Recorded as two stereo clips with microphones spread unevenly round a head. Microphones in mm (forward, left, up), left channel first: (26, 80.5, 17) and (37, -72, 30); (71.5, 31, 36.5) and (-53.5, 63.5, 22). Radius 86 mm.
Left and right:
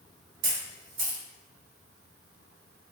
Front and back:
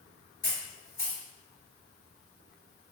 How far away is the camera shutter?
About 1.4 m.